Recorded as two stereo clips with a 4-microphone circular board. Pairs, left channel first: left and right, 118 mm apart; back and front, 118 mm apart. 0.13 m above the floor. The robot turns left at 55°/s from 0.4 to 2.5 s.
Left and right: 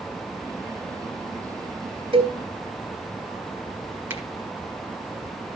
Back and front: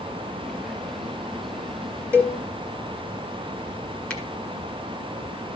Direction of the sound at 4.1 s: 120° right.